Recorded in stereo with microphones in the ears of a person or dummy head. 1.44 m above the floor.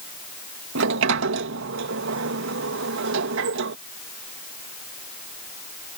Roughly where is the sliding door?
Right.